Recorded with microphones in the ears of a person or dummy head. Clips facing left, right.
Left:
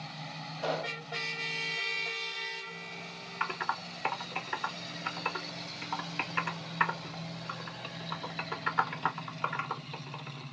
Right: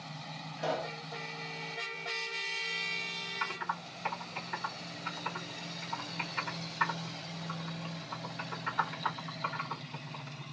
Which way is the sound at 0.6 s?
10° right (ahead or behind).